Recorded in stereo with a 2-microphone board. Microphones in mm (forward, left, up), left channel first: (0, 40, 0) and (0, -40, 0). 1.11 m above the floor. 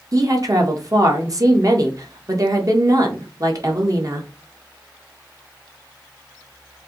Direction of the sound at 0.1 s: 45° right (ahead or behind).